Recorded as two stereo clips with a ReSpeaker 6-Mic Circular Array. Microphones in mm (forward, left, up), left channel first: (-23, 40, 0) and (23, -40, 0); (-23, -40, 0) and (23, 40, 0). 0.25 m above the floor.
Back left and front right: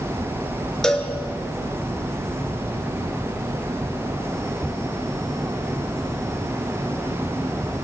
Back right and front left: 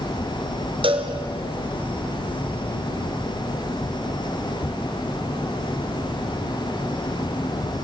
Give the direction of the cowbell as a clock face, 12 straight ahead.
11 o'clock.